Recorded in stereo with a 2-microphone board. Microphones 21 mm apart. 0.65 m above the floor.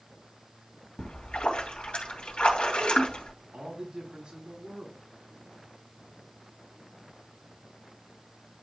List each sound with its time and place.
1.0 s a splash: 85° left, 2.5 m
3.5 s a man speaking: 50° right (ahead or behind), 4.5 m